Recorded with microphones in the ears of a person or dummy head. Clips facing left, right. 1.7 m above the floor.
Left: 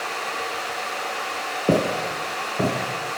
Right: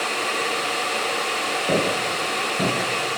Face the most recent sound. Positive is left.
turn(degrees=0)  # may be behind; listen again after turning